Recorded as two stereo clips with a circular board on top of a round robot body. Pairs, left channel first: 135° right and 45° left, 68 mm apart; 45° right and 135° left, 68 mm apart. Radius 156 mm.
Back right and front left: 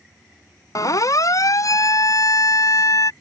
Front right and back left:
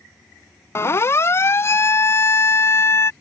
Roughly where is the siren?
Right.